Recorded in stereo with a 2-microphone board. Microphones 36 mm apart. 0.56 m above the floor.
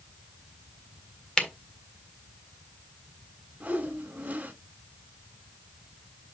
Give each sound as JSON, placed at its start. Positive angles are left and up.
{"t": 1.4, "sound": "a camera shutter", "side_deg": 20, "distance_m": 1.7}
{"t": 3.6, "sound": "a whoosh", "side_deg": -40, "distance_m": 2.5}